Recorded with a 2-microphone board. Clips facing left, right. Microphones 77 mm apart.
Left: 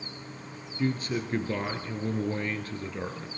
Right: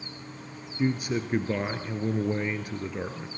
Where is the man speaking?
15° right (ahead or behind), 1.6 m.